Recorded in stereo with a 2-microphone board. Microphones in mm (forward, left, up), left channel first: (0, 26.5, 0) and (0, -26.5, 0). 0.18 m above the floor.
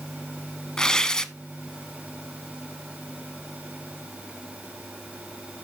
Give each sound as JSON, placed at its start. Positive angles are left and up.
{"t": 0.8, "sound": "tearing paper", "side_deg": 15, "distance_m": 0.5}